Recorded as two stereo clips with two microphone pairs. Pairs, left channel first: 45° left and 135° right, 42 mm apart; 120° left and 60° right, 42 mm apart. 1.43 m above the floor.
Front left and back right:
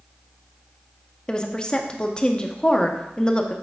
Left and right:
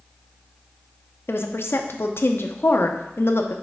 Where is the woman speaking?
110° left, 0.7 m.